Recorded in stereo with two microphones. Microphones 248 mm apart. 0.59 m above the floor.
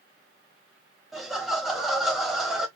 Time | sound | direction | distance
1.1 | laughter | centre (ahead or behind) | 1.0 m